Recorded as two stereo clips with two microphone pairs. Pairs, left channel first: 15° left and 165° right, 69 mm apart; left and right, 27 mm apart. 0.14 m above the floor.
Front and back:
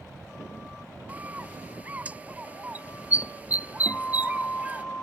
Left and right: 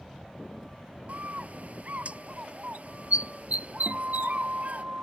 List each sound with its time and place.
1.1 s a bird: 100° right
3.9 s a guitar: 55° right